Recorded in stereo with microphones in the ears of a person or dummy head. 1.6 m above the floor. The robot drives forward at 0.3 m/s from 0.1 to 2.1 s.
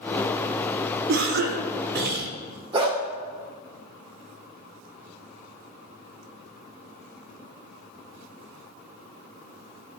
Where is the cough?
80° right, 1.6 m; by 2.3 s 70° right (ahead or behind), 1.7 m.